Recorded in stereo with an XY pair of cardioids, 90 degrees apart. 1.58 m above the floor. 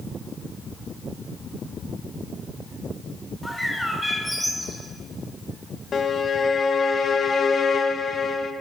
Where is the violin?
50° left, 1.6 m.